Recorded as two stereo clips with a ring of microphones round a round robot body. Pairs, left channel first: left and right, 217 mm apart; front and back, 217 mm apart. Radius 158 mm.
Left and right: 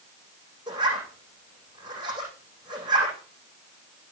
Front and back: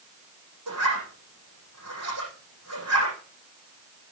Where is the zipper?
165° right, 9 m.